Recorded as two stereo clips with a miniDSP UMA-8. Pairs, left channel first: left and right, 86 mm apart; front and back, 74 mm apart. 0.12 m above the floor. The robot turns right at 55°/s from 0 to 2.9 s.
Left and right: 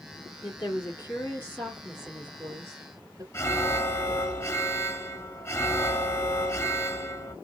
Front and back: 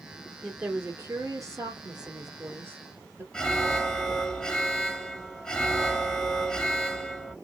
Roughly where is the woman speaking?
Left.